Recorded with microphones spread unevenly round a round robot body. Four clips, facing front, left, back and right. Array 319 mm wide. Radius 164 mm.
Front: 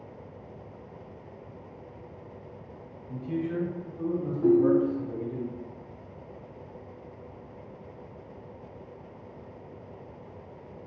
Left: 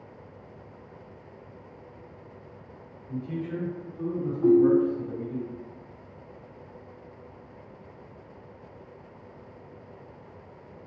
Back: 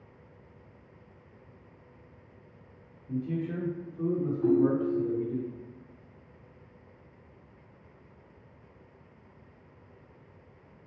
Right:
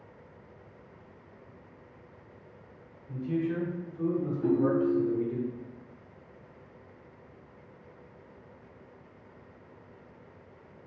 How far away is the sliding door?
I don't hear a sliding door.